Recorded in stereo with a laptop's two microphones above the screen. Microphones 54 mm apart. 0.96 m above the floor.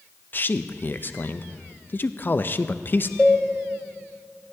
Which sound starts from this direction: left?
A man speaking, at 0.3 s.